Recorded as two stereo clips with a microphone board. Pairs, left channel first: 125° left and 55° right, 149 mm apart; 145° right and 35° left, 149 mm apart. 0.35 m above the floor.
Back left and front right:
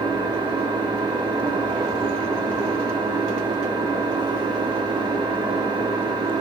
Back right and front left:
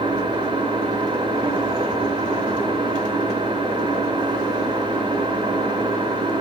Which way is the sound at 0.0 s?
10° right.